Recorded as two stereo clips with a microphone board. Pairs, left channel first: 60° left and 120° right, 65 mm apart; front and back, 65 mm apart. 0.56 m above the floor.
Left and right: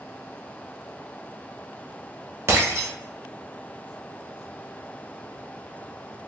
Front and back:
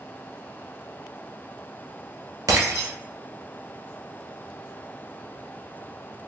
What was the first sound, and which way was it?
Breaking glass, 165° right.